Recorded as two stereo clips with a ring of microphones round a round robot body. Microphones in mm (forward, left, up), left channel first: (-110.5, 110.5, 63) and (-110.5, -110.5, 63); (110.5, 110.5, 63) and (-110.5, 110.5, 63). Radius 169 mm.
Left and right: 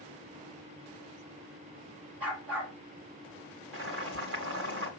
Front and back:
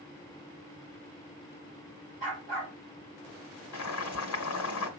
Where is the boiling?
35° right, 1.9 m.